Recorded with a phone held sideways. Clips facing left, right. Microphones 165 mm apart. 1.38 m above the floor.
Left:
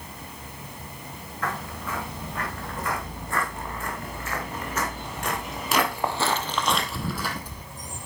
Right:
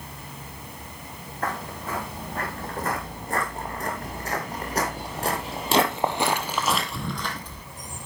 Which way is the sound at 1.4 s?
40° right (ahead or behind).